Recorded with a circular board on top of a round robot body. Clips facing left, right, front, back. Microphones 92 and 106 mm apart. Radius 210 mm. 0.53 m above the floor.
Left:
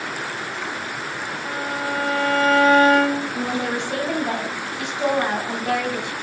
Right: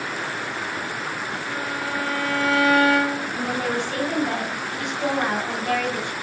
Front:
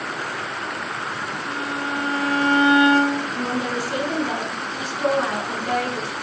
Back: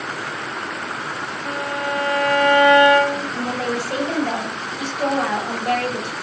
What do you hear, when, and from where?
1.4 s a violin: 150° left, 0.9 m
3.3 s a woman speaking: 160° left, 3.5 m